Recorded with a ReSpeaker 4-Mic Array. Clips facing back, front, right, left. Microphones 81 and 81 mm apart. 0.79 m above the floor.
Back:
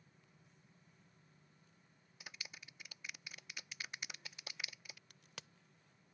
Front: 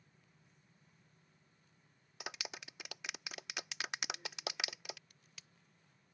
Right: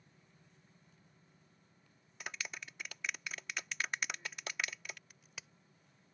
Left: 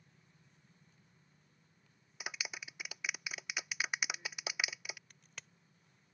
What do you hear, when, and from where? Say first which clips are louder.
2.2 s a clap: front 8 dB, left 1 dB; 10° left
5.1 s a crack: back 7 dB, even; 175° right